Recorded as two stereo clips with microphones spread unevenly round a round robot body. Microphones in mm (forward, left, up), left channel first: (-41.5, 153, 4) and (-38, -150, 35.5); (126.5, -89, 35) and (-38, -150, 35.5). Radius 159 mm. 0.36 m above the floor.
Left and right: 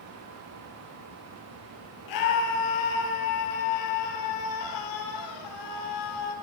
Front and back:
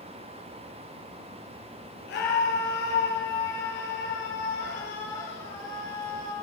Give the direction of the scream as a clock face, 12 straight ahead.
10 o'clock.